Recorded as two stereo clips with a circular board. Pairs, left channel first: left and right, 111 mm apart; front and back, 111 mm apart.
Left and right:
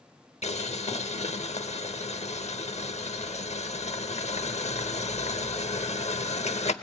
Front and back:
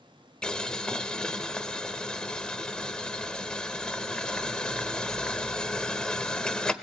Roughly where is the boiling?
Left.